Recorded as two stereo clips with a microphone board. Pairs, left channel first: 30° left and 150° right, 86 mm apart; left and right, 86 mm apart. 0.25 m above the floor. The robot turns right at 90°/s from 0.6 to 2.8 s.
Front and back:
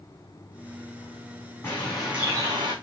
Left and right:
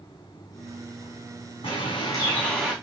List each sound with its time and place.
1.6 s a bird: 90° left, 5.5 m; by 2.7 s 175° right, 5.5 m